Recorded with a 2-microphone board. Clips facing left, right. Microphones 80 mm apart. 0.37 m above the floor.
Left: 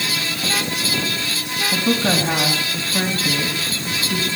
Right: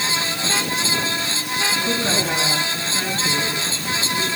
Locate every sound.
1.7 s a woman speaking: 45° left (ahead or behind), 3.5 m